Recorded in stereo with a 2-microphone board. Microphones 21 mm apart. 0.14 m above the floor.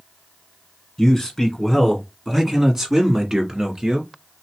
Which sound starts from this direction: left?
A man speaking, at 1.0 s.